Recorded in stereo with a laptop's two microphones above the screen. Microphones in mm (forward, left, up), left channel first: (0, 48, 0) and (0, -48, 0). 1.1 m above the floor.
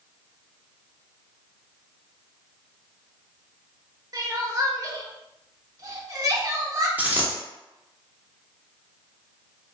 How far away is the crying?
About 0.6 m.